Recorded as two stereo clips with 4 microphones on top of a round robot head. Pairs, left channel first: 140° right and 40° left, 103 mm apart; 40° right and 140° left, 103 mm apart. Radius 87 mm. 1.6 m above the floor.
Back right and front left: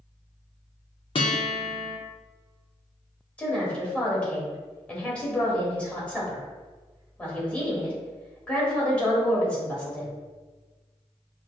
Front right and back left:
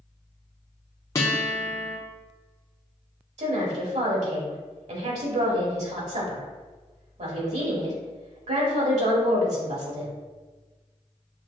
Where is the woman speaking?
145° left, 1.6 m.